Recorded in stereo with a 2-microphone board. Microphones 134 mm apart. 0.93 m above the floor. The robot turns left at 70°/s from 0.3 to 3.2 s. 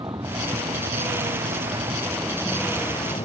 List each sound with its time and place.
0.0 s a vehicle: 30° right; by 3.2 s 130° left